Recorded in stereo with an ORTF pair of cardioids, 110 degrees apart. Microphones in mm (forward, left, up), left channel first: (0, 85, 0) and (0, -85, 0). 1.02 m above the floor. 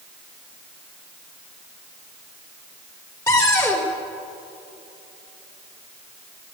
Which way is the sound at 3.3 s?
15° left.